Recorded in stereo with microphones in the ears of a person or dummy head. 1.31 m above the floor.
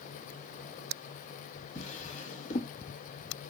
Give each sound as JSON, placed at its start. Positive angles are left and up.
{"t": 1.8, "sound": "a drawer", "side_deg": 40, "distance_m": 1.2}